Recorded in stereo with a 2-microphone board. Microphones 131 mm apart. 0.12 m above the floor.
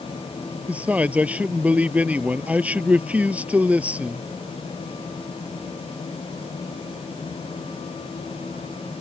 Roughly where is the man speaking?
Centre.